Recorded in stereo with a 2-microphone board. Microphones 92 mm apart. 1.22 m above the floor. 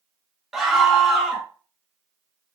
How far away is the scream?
About 1.7 m.